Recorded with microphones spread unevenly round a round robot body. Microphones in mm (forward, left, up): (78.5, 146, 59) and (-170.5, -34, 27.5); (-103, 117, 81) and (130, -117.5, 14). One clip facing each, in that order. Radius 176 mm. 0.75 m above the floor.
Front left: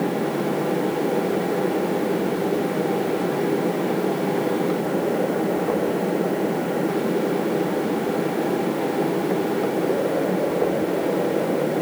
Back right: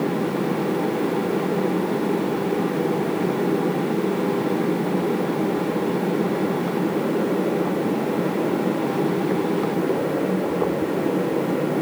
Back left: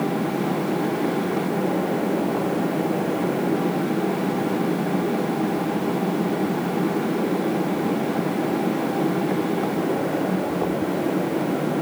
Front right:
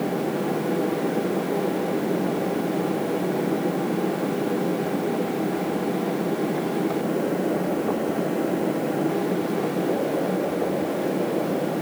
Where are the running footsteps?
I don't hear running footsteps.